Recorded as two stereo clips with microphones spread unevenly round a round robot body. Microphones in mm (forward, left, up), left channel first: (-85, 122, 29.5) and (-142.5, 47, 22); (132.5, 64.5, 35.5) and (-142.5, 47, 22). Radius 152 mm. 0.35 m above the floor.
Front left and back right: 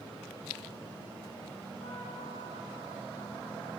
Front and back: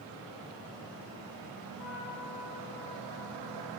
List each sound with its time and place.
1.8 s a trumpet: 5° right, 8.5 m